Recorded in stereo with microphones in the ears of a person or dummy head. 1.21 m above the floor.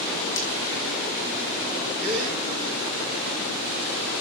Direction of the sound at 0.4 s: 75° left (ahead or behind).